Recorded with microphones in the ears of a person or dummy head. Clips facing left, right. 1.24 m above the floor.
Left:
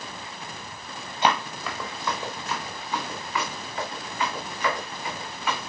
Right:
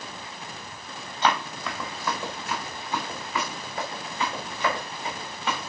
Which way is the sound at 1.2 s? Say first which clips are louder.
Left 1 dB; 15° left (ahead or behind).